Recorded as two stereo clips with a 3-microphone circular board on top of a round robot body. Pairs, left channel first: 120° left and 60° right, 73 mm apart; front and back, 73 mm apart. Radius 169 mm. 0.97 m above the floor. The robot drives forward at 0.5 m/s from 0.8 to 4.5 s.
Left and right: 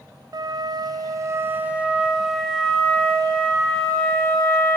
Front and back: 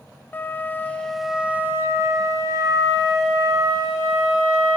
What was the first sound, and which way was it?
A flute, 60° right.